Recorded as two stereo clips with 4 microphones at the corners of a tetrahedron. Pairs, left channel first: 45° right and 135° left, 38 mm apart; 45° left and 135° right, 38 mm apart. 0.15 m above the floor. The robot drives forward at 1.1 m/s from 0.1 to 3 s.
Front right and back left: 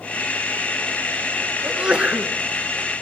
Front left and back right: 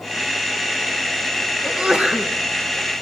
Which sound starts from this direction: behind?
A sneeze, at 1.6 s.